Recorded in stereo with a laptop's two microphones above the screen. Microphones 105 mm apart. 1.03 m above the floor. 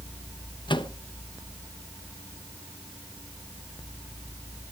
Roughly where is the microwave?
Left.